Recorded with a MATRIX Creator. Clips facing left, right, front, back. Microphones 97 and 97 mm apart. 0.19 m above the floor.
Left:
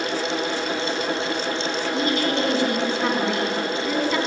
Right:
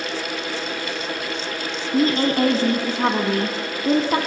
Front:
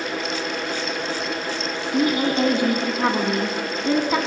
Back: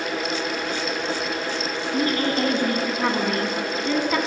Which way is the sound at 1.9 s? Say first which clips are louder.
Right 6 dB, front 3 dB; 65° right.